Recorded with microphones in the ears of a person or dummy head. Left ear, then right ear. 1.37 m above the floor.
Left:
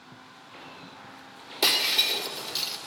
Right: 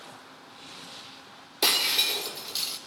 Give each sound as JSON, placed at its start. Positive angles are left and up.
{"t": 1.6, "sound": "breaking glass", "side_deg": 5, "distance_m": 2.5}